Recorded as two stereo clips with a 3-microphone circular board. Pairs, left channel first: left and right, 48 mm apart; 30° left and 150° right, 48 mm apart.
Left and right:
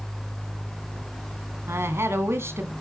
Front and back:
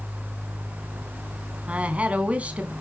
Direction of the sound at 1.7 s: 90° right.